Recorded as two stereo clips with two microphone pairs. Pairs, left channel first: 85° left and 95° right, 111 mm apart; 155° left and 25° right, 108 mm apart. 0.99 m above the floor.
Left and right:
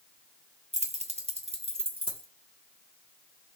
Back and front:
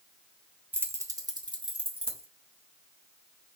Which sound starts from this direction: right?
Keys jangling, at 0.7 s.